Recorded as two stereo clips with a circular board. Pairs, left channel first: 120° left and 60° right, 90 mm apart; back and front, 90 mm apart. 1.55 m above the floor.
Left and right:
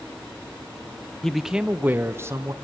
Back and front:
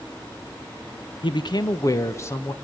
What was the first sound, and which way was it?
A man speaking, 155° right.